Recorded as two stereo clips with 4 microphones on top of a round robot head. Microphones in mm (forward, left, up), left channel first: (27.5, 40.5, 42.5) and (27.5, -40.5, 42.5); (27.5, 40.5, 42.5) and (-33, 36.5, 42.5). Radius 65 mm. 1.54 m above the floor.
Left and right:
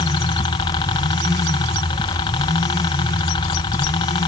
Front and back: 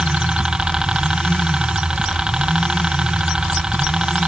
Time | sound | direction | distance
0.0 | a helicopter | 110° left | ?